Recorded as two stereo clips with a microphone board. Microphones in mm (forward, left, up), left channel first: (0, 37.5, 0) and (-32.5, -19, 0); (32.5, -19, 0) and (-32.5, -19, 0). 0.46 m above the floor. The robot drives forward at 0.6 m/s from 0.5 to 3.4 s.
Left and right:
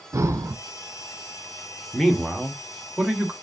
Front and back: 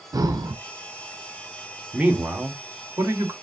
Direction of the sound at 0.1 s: 160° right.